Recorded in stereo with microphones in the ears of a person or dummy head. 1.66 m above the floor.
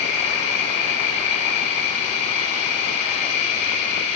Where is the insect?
45° left (ahead or behind), 0.8 m.